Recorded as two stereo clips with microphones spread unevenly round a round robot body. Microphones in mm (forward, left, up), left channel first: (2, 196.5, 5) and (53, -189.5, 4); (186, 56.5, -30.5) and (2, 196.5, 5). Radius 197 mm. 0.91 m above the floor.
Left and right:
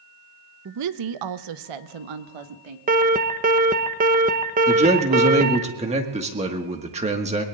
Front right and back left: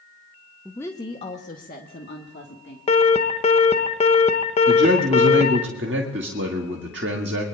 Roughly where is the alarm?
Ahead right.